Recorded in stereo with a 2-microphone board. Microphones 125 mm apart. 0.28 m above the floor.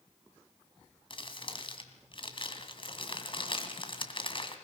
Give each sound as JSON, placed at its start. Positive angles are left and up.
{"t": 1.1, "sound": "crumpling", "side_deg": 45, "distance_m": 2.0}